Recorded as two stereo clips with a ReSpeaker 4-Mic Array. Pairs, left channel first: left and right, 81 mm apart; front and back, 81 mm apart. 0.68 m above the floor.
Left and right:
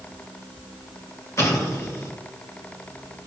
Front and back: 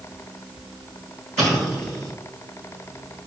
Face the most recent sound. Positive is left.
turn(degrees=90)